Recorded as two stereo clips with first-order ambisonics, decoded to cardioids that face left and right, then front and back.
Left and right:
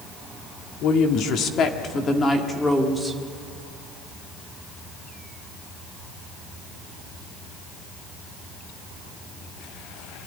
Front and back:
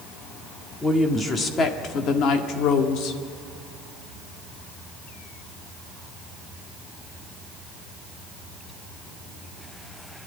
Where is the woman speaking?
80° left, 1.8 m; by 3.2 s 5° right, 2 m.